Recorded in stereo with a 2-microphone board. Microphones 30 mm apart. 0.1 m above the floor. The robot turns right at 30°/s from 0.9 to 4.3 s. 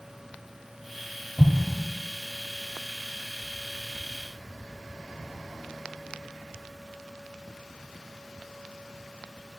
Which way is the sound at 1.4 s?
5° right (ahead or behind).